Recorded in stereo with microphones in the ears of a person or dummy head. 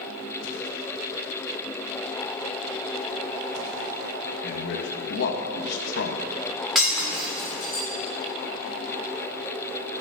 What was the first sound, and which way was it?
A man speaking, 60° left (ahead or behind).